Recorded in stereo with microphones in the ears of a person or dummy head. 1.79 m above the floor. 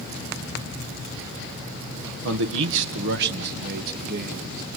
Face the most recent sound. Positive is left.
turn(degrees=-50)  # may be behind; listen again after turning